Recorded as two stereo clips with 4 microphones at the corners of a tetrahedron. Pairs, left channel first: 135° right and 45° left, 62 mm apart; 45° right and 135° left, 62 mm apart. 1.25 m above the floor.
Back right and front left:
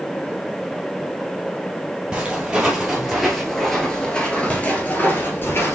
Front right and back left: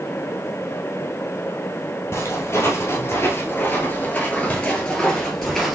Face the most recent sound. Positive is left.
turn(degrees=-135)